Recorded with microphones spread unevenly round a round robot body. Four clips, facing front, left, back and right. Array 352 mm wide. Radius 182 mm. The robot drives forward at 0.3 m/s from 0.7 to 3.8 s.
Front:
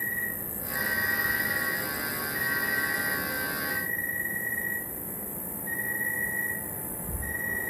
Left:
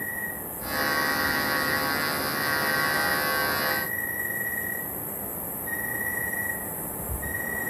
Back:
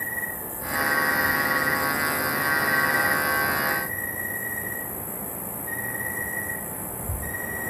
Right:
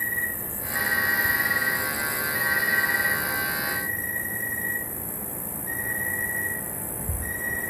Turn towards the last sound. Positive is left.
turn(degrees=-135)